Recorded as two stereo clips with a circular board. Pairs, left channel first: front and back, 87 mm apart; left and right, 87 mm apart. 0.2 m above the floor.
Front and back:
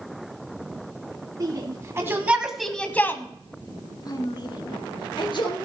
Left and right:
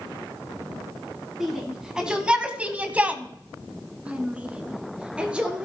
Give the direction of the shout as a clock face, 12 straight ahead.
6 o'clock.